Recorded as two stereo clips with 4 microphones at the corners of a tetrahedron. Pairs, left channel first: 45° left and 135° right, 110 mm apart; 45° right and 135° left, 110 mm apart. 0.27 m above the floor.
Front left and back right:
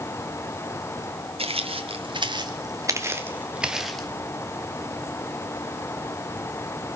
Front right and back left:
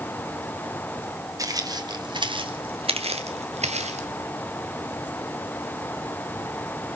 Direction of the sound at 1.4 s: 165° right.